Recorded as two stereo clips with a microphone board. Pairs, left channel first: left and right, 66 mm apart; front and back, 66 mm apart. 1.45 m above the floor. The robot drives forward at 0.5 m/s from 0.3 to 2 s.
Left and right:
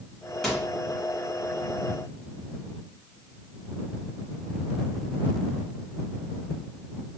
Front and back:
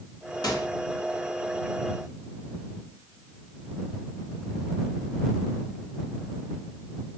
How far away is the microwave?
About 1.3 m.